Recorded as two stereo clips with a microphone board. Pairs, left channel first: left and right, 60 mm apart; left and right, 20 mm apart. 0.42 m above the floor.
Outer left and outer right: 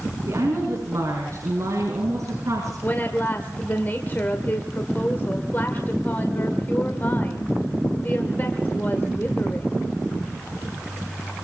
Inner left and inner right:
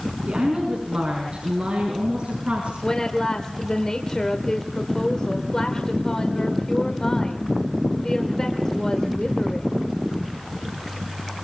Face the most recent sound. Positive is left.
turn(degrees=35)  # may be behind; listen again after turning